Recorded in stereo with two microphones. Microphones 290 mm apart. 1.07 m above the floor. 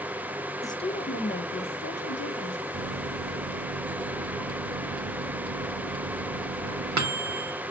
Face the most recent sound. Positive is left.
turn(degrees=-75)  # may be behind; listen again after turning